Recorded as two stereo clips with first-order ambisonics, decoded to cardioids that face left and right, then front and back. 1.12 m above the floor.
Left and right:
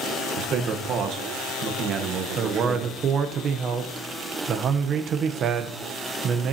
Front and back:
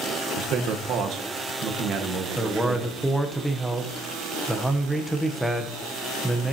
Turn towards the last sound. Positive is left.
turn(degrees=-90)